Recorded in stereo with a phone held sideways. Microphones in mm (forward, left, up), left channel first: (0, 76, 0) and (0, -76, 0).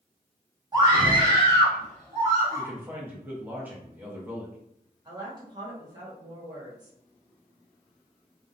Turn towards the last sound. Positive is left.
turn(degrees=-25)  # may be behind; listen again after turning